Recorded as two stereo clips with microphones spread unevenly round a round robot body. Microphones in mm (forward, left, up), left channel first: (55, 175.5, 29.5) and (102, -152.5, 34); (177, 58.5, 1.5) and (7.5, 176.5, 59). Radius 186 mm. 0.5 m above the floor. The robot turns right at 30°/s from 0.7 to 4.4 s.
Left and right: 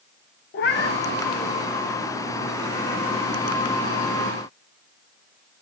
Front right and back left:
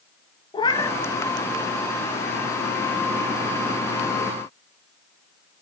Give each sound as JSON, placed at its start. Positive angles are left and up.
{"t": 0.5, "sound": "a cat meowing", "azimuth_deg": 45, "distance_m": 0.5}